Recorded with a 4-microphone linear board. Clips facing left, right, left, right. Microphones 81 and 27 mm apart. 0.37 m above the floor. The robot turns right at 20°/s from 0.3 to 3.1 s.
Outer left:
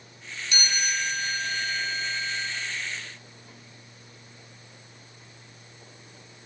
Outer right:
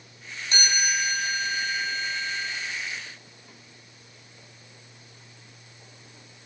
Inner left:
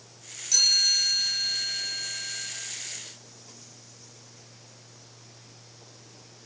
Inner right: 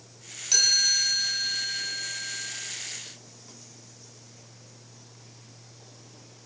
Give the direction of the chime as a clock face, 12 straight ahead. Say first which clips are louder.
Outer right 3 dB, inner left 1 dB; 1 o'clock.